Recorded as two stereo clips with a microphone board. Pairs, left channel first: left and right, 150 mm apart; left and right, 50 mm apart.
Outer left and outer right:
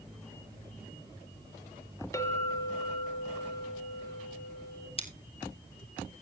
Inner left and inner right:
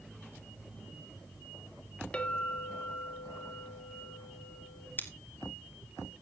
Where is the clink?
20° left (ahead or behind), 1.6 m.